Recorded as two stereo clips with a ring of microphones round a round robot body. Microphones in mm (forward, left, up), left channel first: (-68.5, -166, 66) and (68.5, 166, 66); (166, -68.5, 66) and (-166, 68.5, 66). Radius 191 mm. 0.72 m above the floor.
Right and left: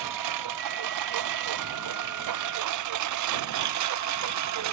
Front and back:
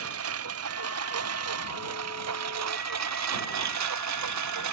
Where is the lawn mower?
105° left; by 4.7 s 115° left.